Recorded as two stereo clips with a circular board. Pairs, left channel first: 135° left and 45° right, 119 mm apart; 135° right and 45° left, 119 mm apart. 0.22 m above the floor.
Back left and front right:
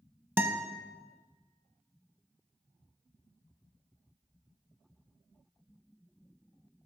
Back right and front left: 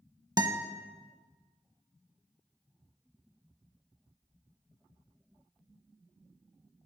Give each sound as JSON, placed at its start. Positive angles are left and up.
{"t": 0.4, "sound": "a guitar", "azimuth_deg": 20, "distance_m": 0.7}